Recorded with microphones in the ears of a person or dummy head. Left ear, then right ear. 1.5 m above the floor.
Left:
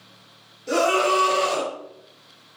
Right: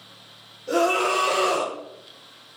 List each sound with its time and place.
0.7 s a scream: 55° left (ahead or behind), 2 m; by 1.7 s 50° left (ahead or behind), 1.6 m